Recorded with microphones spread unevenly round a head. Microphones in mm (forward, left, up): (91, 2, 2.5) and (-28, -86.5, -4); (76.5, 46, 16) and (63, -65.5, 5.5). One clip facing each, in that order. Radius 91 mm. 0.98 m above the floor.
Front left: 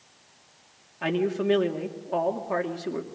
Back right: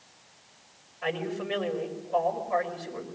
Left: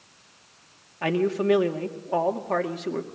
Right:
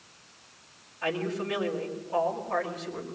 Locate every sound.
1.0 s a man speaking: 55° left, 2.5 m